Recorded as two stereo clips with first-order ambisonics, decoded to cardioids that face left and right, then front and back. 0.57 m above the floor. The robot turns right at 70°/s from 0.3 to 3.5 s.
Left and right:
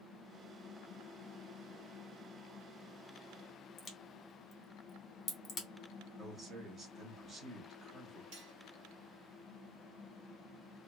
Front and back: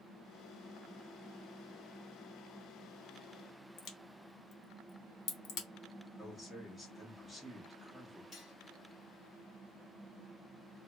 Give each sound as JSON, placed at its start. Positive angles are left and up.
{"t": 3.8, "sound": "a crack", "azimuth_deg": 35, "distance_m": 0.8}
{"t": 6.2, "sound": "a man speaking", "azimuth_deg": -90, "distance_m": 0.6}
{"t": 8.3, "sound": "cutlery clinking", "azimuth_deg": -70, "distance_m": 1.1}